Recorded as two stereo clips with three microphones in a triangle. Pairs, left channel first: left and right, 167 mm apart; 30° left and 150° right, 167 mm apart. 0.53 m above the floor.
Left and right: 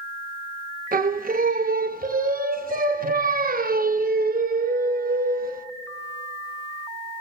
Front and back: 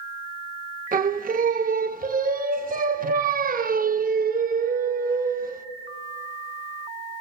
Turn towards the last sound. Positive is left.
turn(degrees=-120)